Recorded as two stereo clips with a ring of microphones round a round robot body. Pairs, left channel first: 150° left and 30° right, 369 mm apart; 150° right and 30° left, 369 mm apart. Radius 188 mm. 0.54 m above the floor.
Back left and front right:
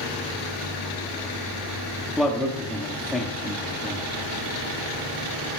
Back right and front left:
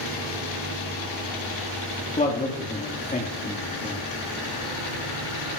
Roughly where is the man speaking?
Behind right.